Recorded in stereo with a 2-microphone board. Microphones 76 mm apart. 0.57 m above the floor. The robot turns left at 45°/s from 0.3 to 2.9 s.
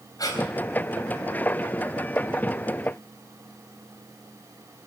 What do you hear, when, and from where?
0.2 s breathing: 50° left (ahead or behind), 4 m; by 0.4 s 45° left (ahead or behind), 4 m